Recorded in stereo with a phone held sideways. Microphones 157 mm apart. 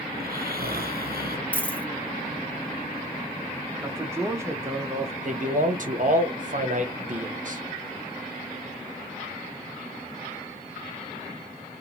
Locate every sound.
0.1 s snoring: 75° right (ahead or behind), 0.6 m
1.5 s a dropped coin: 10° left (ahead or behind), 0.6 m
3.8 s a man speaking: 15° right (ahead or behind), 0.5 m
5.2 s a man speaking: 55° right (ahead or behind), 0.7 m